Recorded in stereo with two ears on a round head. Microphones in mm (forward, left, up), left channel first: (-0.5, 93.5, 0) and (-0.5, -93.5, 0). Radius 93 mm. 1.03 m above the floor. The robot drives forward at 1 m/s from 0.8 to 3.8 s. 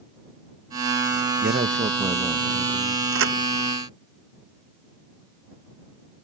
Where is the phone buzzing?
No phone buzzing in this recording.